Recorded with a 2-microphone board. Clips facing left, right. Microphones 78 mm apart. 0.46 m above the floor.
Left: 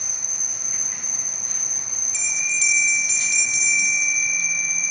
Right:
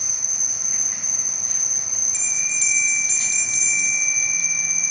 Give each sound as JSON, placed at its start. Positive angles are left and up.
{"t": 0.0, "sound": "an insect", "side_deg": -5, "distance_m": 0.9}
{"t": 2.1, "sound": "a bell", "side_deg": -45, "distance_m": 1.8}